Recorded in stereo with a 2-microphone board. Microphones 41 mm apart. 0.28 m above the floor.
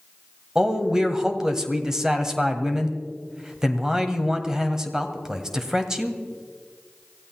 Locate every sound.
0.6 s a man speaking: 15° right (ahead or behind), 1.5 m